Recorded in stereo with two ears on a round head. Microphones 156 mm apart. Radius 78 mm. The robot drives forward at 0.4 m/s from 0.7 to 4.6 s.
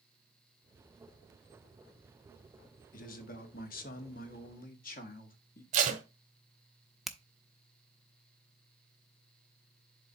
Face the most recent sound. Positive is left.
turn(degrees=0)  # may be behind; listen again after turning